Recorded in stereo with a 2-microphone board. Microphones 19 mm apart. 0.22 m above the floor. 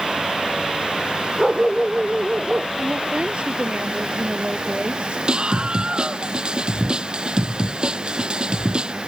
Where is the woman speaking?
70° right (ahead or behind).